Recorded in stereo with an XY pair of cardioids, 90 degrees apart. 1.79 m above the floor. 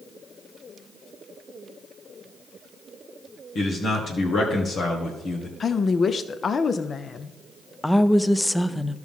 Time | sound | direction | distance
3.5 | a man speaking | 65° left | 1.6 m
5.6 | a woman speaking | 45° left | 0.6 m
7.8 | a woman speaking | 10° left | 0.5 m